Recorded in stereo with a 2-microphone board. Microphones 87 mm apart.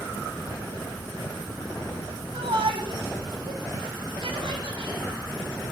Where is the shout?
80° right, 8 m.